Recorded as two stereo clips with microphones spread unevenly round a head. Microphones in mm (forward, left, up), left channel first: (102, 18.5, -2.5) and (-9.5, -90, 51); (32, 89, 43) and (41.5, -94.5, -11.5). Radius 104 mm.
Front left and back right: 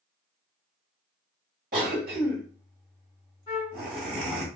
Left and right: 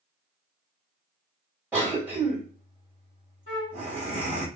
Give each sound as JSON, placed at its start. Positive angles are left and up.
{"t": 1.7, "sound": "a cough", "azimuth_deg": -175, "distance_m": 1.8}
{"t": 3.5, "sound": "a flute", "azimuth_deg": 125, "distance_m": 2.5}